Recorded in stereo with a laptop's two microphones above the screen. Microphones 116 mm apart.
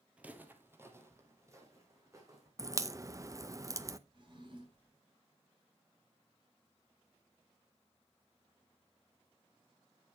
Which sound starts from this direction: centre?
Footsteps, at 0.2 s.